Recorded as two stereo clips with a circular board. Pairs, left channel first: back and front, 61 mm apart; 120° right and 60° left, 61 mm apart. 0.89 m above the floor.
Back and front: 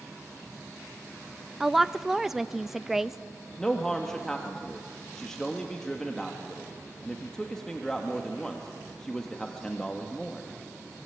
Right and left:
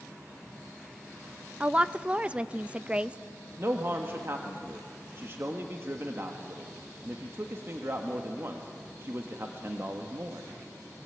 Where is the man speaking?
100° left, 1.4 m.